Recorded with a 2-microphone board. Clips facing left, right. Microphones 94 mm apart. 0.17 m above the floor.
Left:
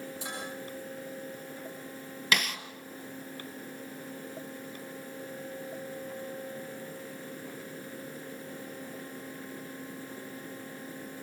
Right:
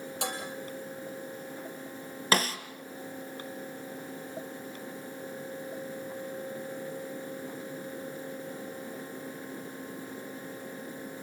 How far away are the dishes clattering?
About 4 m.